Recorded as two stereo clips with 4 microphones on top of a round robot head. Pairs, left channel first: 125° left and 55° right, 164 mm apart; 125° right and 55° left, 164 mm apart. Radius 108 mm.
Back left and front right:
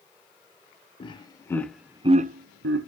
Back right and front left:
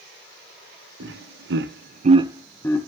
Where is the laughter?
60° left, 1.1 m; by 2.9 s 55° right, 0.8 m.